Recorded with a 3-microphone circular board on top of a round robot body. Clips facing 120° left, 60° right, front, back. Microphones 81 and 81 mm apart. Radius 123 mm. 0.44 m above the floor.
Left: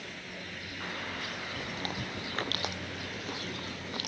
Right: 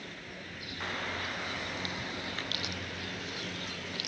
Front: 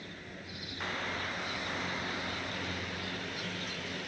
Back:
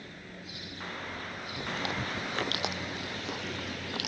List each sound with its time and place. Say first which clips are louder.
1.6 s chewing: left 1 dB, back 2 dB; 170° left